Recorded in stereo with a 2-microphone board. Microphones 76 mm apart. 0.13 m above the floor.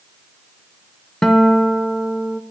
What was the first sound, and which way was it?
A guitar, 5° left (ahead or behind).